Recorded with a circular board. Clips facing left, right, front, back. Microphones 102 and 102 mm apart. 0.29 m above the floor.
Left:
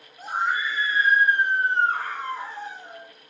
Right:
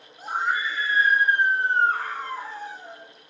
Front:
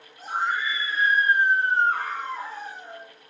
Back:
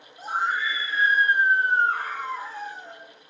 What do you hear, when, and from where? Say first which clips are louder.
0.2 s a scream: even, even; 175° left, 2.0 m; by 3.0 s 65° left, 1.7 m